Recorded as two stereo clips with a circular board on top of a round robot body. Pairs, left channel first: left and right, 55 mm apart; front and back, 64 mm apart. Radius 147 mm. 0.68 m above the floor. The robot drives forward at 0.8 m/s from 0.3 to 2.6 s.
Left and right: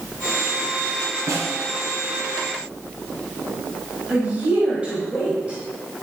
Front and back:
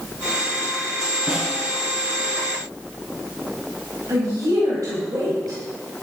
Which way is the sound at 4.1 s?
155° right.